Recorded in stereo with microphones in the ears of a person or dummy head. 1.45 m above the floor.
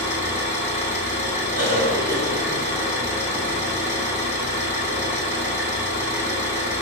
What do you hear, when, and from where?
0.0 s an engine running: 10° right (ahead or behind), 1.0 m
1.6 s a cough: 85° right, 1.7 m